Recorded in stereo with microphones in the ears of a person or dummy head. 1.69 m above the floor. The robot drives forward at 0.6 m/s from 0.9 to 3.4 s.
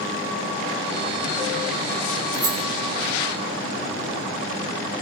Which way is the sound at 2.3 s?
15° right (ahead or behind).